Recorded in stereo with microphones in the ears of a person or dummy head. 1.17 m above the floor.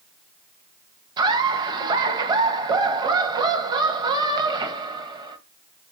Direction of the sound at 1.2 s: 25° right (ahead or behind).